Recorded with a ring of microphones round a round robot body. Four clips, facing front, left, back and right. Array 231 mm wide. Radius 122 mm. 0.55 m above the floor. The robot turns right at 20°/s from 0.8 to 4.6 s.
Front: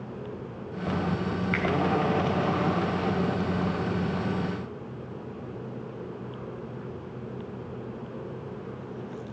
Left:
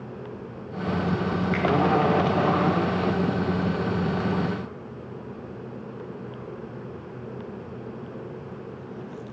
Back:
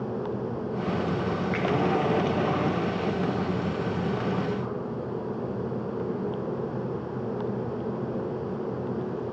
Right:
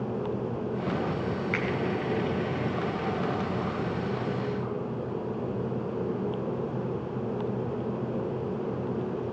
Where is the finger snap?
10° right, 4.5 m; by 1.6 s 5° right, 4.5 m.